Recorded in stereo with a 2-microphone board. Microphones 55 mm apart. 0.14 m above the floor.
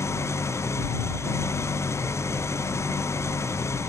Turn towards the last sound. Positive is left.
turn(degrees=60)  # may be behind; listen again after turning